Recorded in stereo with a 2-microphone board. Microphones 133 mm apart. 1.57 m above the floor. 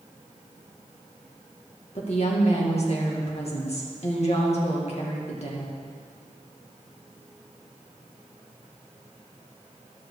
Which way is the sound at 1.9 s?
50° left (ahead or behind).